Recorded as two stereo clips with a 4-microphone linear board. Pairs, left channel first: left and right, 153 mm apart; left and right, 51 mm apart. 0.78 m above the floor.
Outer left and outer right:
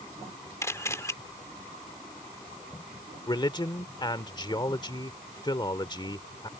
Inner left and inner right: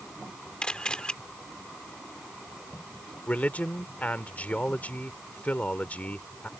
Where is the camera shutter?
20° left (ahead or behind).